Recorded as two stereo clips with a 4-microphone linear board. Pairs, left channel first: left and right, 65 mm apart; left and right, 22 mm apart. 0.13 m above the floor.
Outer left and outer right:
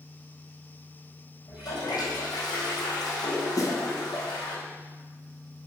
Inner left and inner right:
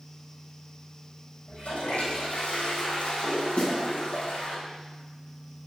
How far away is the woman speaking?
No woman speaking in this recording.